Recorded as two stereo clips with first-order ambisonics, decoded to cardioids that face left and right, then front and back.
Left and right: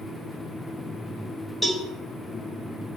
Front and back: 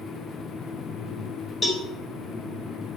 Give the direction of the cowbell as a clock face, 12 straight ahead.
11 o'clock.